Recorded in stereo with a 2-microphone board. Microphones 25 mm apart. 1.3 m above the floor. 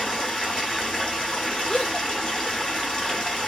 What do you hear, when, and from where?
0.0 s running water: 25° left (ahead or behind), 1.6 m
1.7 s a gasp: 35° left (ahead or behind), 1.3 m